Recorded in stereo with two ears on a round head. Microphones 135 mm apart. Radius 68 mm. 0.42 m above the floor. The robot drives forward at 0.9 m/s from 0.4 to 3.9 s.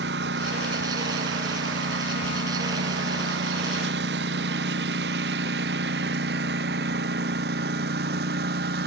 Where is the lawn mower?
75° right (ahead or behind); by 8.9 s 80° right.